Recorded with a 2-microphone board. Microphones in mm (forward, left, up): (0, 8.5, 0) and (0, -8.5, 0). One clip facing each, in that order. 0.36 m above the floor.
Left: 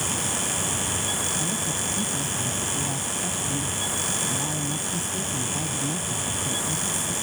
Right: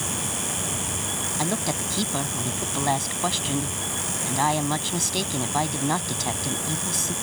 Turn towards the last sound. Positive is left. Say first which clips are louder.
# right 1 dB
turn(degrees=-70)  # may be behind; listen again after turning